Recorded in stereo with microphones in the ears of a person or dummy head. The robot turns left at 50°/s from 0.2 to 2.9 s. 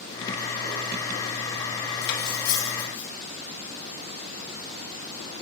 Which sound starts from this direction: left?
Cutlery clinking, at 2.0 s.